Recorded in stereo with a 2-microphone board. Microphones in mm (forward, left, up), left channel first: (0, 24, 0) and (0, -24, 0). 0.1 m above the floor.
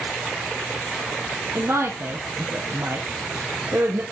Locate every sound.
1.6 s a woman speaking: 65° right (ahead or behind), 3 m